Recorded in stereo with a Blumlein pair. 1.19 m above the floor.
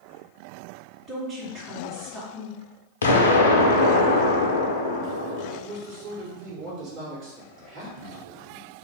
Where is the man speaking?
35° right, 1.2 m.